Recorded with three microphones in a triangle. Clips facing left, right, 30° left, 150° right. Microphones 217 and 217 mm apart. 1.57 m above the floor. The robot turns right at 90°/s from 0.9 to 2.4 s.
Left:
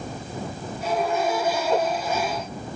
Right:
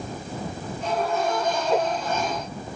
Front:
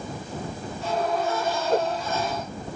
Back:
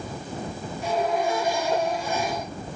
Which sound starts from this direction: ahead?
A whoosh, at 1.7 s.